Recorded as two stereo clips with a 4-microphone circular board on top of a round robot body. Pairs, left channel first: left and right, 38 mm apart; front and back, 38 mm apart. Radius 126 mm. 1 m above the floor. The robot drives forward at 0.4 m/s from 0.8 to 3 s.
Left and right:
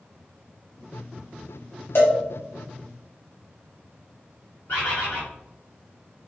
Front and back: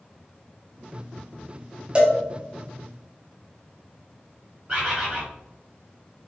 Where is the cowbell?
120° left, 1.2 m; by 2.2 s 125° left, 1.3 m.